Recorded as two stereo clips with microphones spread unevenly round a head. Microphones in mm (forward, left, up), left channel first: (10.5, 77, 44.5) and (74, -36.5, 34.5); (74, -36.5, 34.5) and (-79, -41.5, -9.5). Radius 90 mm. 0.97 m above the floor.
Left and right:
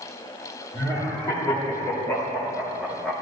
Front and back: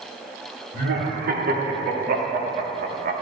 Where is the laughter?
175° right, 2.5 m; by 3.1 s 150° right, 1.1 m.